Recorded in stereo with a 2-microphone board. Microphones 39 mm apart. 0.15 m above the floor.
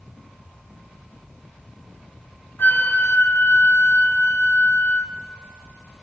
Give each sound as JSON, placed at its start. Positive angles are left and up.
{"t": 2.6, "sound": "a flute", "side_deg": 65, "distance_m": 1.0}